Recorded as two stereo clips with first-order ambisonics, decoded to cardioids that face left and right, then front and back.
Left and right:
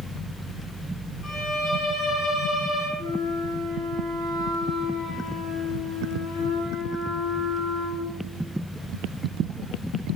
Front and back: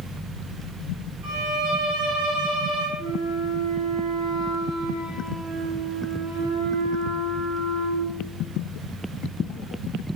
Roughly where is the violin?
Behind left.